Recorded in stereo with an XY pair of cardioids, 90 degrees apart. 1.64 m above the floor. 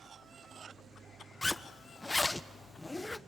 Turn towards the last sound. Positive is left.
turn(degrees=20)